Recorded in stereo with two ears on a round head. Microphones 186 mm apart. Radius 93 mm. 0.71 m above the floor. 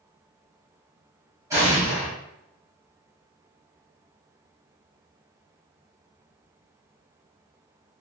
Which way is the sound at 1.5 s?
15° right (ahead or behind).